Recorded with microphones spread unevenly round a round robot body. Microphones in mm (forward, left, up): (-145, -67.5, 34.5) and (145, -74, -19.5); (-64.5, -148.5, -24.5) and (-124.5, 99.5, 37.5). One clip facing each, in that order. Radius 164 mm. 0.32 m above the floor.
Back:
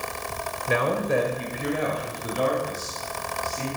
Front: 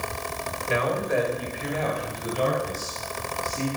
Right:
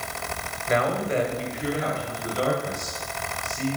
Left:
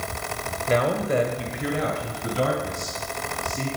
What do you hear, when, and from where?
0.7 s a man speaking: 160° left, 1.7 m; by 3.7 s 70° left, 3.5 m